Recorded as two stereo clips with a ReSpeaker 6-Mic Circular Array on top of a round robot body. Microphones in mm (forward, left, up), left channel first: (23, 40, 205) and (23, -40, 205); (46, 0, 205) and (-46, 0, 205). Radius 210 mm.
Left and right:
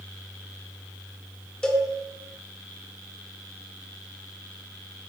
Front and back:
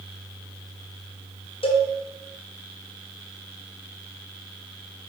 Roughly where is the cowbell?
Ahead.